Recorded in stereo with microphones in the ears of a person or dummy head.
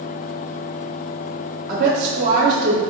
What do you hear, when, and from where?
1.7 s a woman speaking: 55° right (ahead or behind), 0.7 m